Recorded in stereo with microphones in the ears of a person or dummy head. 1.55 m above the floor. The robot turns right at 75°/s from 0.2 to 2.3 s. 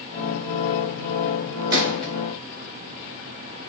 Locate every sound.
1.7 s a gunshot: 20° right (ahead or behind), 1.6 m; by 2.1 s 10° left (ahead or behind), 1.6 m